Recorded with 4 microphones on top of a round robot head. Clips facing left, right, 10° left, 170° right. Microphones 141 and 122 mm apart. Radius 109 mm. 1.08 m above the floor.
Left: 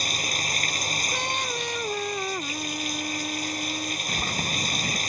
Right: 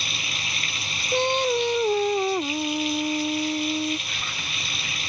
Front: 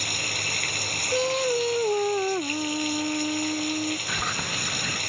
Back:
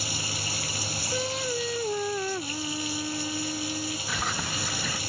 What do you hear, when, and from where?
0.0 s running water: 40° left
1.1 s singing: 45° right
4.1 s a bird: 100° left